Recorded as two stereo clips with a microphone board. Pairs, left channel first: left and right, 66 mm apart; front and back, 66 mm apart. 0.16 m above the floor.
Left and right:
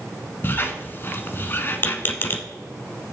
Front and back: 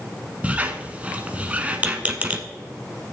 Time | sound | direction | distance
0.4 | a squeak | 120° left | 0.9 m